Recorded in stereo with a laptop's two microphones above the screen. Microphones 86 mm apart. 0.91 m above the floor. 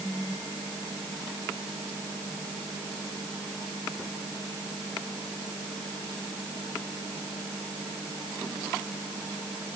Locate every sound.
Only background noise.